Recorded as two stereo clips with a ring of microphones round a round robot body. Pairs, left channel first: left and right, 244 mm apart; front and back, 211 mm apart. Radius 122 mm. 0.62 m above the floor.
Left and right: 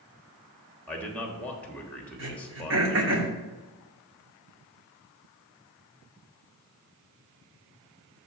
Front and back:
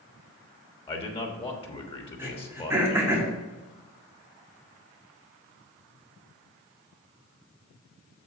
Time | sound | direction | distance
0.9 | a man speaking | 15° left | 1.2 m
2.2 | throat clearing | 105° right | 2.0 m